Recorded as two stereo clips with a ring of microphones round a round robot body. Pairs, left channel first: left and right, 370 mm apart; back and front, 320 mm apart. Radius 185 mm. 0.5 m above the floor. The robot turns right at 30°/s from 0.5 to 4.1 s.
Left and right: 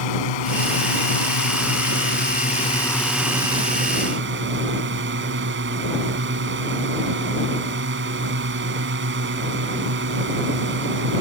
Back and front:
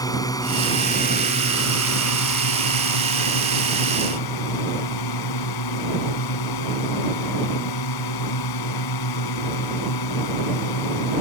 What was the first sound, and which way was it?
A drone, 100° left.